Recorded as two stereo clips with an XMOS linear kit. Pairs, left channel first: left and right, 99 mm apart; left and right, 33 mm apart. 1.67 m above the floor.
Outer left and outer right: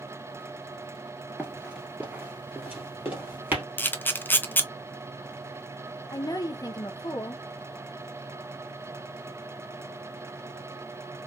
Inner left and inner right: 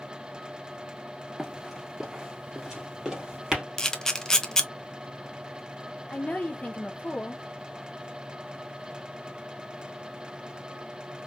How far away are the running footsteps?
About 1.7 m.